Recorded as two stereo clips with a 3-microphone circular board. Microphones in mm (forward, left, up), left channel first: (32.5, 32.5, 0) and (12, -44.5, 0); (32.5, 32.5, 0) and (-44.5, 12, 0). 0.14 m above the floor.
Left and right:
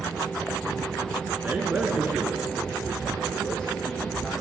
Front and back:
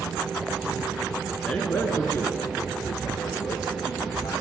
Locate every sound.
1.4 s a man speaking: 55° right, 1.5 m; by 4.3 s 20° right, 3 m